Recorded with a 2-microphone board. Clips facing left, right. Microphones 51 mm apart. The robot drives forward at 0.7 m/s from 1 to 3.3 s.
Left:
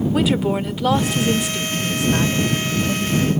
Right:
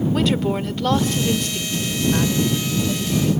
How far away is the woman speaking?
About 0.8 m.